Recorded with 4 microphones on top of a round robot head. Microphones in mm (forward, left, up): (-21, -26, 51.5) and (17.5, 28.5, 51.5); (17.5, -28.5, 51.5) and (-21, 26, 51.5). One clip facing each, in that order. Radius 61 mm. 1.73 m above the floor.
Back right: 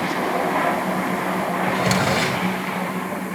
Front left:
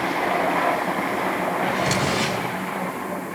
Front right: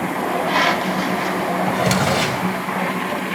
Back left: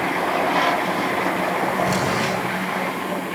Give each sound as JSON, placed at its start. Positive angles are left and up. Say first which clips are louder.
{"t": 1.7, "sound": "a drawer", "louder": "back right 2 dB, front right 2 dB", "azimuth_deg": -75, "distance_m": 4.5}